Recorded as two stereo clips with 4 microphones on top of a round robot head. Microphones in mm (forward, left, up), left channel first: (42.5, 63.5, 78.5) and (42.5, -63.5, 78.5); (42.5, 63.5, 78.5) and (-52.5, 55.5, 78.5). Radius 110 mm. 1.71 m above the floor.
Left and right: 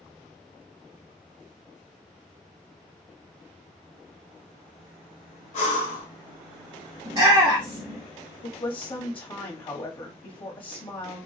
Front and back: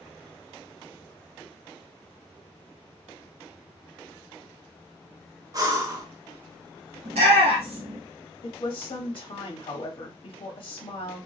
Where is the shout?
160° right, 0.9 m.